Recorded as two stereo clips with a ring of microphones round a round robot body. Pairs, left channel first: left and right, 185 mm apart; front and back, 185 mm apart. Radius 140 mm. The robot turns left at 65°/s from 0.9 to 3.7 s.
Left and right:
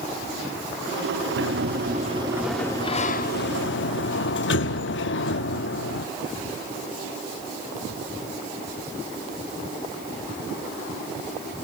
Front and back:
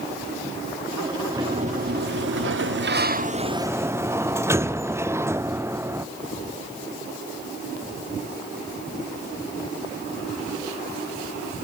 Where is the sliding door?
105° right, 0.7 m; by 6.1 s 105° left, 0.7 m.